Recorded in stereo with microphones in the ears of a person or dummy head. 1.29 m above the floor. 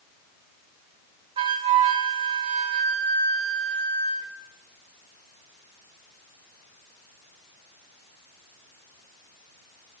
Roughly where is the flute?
Right.